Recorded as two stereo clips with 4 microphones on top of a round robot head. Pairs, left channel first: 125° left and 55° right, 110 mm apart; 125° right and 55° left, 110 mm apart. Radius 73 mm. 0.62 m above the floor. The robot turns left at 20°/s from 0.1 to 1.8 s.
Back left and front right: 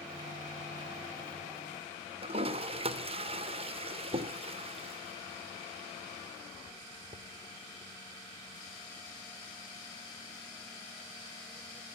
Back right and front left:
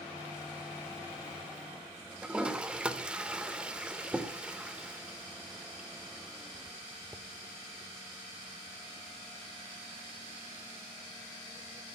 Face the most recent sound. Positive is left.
turn(degrees=-25)